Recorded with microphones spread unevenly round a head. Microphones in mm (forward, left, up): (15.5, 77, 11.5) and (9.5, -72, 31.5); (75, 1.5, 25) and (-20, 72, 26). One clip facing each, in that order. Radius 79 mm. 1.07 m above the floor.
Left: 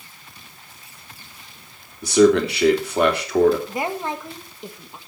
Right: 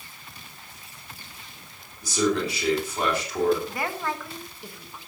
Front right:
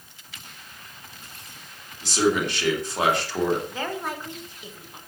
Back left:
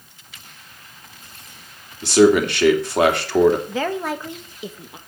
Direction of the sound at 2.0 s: 120° left.